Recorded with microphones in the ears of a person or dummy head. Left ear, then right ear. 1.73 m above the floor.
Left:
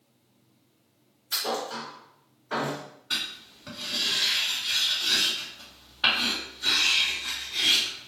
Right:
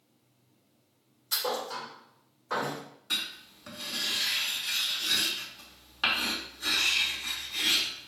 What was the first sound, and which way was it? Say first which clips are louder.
A thud: left 2 dB; 60° right (ahead or behind).